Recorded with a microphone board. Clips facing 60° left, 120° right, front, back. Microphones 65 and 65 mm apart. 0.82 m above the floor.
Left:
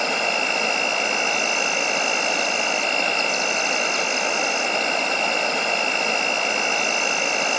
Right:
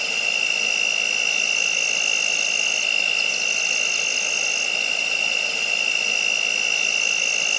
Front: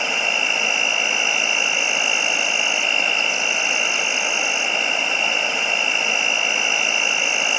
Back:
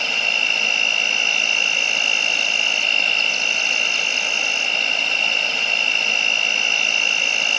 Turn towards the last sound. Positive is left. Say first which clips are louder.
# left 4 dB, front 1 dB
turn(degrees=65)